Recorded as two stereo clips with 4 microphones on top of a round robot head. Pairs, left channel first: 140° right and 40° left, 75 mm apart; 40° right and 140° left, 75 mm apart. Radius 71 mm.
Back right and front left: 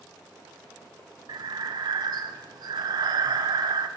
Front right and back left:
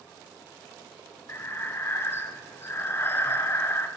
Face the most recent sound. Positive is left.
turn(degrees=20)